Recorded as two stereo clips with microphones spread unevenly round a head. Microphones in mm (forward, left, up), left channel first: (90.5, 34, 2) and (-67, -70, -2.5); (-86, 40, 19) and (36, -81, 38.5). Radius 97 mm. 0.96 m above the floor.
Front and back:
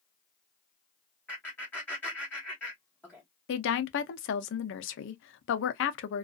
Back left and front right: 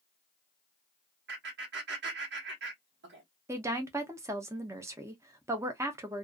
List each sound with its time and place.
1.3 s laughter: 45° right, 1.1 m
3.5 s a woman speaking: 35° left, 0.6 m